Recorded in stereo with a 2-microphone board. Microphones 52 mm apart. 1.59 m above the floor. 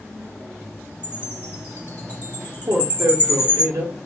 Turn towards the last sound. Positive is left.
turn(degrees=-65)  # may be behind; listen again after turning